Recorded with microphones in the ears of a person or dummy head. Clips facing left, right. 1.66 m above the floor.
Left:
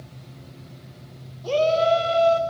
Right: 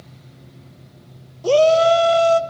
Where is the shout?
60° right (ahead or behind), 0.7 m.